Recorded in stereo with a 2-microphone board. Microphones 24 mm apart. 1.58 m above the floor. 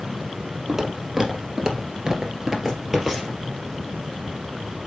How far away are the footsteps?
About 2.5 m.